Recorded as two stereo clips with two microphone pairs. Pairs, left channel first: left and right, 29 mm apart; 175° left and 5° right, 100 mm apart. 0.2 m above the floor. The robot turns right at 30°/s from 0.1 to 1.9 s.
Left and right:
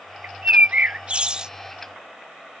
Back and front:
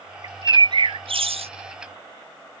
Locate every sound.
0.2 s a bird: 65° right; by 1.5 s 25° right